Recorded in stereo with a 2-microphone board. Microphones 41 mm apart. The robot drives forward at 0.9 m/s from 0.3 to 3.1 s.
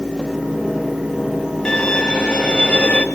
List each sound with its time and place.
1.6 s a violin: 20° left (ahead or behind), 2.5 m; by 3.0 s 35° left (ahead or behind), 1.4 m